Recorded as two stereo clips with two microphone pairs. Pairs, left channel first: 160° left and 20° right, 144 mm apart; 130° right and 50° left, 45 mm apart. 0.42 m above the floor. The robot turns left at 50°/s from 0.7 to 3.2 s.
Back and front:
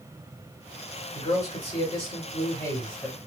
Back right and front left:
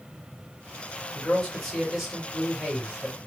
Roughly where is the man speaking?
Behind.